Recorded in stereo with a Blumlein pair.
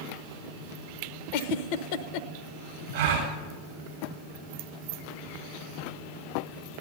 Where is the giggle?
45° left, 0.7 m.